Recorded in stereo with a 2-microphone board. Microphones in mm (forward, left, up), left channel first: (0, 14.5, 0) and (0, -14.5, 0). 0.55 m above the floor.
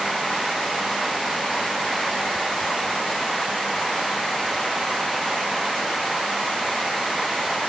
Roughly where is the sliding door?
No sliding door in this recording.